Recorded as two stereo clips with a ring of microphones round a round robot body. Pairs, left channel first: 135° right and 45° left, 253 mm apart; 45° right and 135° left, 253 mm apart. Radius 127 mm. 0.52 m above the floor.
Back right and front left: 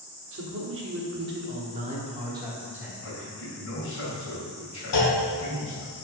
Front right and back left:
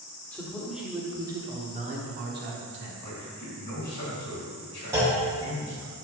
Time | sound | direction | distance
0.3 | a man speaking | 35° left | 1.3 m
3.0 | a man speaking | 105° right | 2.5 m
4.9 | a clunk | 145° right | 1.6 m